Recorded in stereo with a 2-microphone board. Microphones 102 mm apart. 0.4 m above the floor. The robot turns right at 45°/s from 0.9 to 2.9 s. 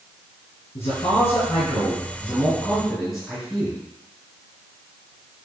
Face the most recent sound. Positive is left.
turn(degrees=180)